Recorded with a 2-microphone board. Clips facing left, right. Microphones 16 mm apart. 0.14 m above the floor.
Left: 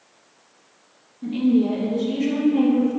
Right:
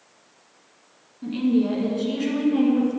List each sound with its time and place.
1.2 s a woman speaking: 20° right (ahead or behind), 1.2 m; by 3.0 s 35° right (ahead or behind), 1.8 m